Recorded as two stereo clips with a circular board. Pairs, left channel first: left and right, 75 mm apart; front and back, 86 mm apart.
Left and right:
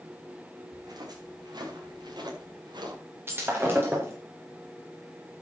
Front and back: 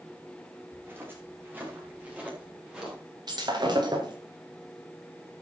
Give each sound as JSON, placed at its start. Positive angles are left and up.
{"t": 0.7, "sound": "footsteps", "azimuth_deg": -120, "distance_m": 7.0}
{"t": 3.3, "sound": "breaking glass", "azimuth_deg": -150, "distance_m": 5.0}